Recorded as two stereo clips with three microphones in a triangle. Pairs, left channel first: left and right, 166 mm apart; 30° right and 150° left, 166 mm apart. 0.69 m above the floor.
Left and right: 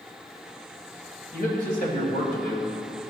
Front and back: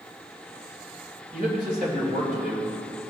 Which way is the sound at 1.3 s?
115° left.